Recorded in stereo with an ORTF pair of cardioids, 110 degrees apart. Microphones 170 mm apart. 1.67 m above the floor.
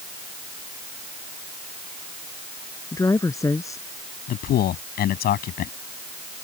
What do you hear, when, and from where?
2.9 s a woman speaking: 20° left
4.3 s a man speaking: 65° left